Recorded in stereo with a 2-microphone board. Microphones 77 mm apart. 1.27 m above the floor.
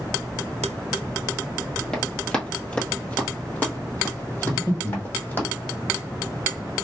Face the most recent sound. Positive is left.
turn(degrees=40)  # may be behind; listen again after turning